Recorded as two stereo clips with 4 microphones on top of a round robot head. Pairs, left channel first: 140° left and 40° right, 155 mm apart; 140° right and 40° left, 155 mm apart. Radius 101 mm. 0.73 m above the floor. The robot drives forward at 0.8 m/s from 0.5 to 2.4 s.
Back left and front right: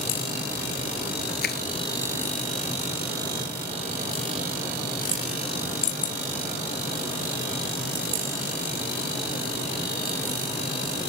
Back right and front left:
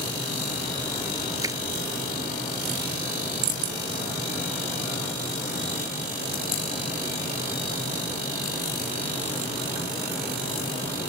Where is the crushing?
115° left.